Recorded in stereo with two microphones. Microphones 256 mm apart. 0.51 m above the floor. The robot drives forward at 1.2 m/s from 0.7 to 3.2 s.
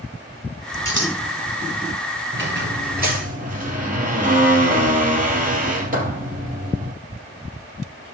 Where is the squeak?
45° right (ahead or behind), 2 m; by 6.9 s 30° right (ahead or behind), 3 m.